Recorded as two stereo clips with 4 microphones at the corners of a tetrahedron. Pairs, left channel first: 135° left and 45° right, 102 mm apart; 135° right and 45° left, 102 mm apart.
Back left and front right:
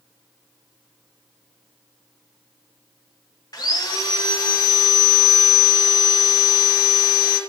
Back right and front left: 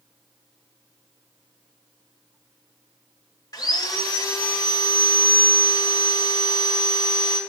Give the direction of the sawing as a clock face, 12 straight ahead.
6 o'clock.